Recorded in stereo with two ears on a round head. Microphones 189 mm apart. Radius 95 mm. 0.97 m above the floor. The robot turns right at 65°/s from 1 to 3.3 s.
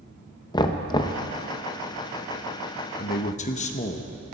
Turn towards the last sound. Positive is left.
turn(degrees=35)  # may be behind; listen again after turning